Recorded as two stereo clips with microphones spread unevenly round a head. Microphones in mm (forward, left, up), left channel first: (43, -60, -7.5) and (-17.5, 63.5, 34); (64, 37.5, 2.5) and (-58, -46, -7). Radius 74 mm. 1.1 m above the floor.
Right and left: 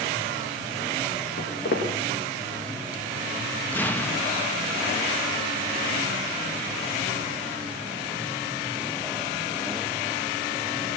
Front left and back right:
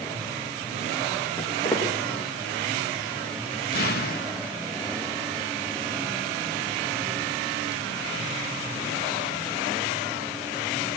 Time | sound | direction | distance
1.4 | footsteps | 45° right | 6 m
3.7 | an explosion | 10° left | 1.4 m